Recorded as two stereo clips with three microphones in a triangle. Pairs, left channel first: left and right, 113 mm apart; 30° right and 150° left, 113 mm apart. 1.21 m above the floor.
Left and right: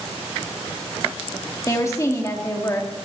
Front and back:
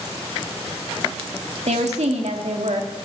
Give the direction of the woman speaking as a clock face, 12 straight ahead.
7 o'clock.